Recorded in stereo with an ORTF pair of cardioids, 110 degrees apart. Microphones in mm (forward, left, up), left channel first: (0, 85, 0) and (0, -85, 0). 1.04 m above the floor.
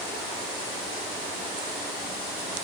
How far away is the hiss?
I don't hear a hiss.